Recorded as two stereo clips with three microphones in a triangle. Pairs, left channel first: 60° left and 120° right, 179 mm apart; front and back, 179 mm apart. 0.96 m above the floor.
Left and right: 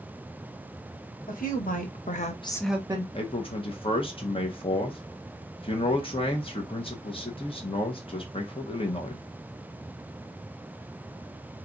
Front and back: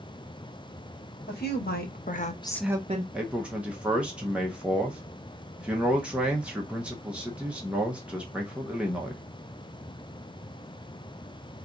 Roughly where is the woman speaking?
Ahead.